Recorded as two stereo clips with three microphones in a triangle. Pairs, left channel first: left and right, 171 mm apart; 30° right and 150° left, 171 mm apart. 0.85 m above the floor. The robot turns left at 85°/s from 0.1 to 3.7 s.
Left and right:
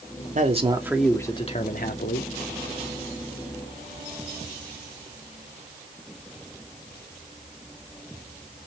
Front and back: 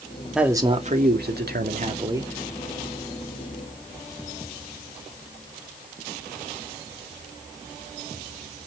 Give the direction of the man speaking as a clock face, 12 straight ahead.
4 o'clock.